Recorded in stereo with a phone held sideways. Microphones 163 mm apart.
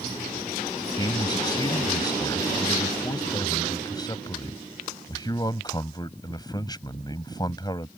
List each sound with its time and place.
1.0 s a man speaking: 25° left (ahead or behind)